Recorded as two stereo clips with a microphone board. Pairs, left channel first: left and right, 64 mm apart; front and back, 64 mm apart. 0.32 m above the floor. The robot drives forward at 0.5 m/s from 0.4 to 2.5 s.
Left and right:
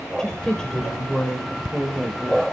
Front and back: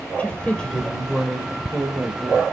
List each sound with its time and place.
0.2 s a woman speaking: 30° left, 1.0 m; by 2.4 s 165° left, 1.1 m